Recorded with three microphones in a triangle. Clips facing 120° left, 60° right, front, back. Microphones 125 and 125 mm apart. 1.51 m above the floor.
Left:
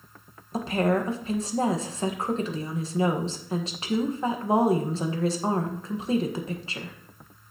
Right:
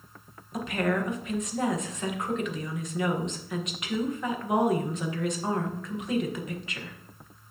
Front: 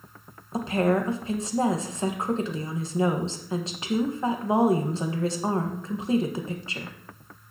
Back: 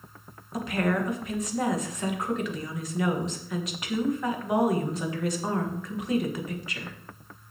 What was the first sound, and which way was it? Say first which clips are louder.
A woman speaking: left 4 dB, front 4 dB; 60° left.